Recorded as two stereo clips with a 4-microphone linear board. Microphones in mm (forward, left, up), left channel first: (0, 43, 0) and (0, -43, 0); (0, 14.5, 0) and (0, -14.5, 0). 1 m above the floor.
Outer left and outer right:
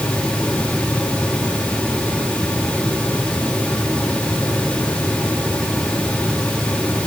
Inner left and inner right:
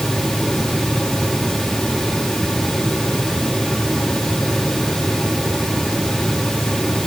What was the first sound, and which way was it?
Only background noise.